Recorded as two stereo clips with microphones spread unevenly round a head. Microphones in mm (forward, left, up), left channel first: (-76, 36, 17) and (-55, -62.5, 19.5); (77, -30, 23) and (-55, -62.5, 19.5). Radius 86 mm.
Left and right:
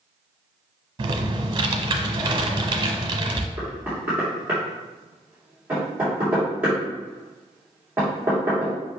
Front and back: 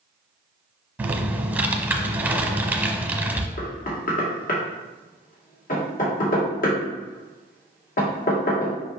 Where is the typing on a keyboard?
90° right, 1.0 m.